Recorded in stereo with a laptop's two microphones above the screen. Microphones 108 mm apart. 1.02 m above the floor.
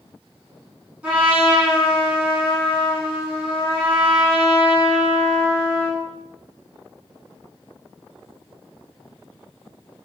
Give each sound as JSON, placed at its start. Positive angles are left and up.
{"t": 1.0, "sound": "a trumpet", "side_deg": -10, "distance_m": 1.4}